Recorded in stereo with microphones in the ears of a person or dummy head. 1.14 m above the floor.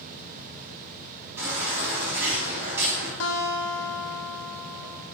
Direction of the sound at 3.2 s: 80° left.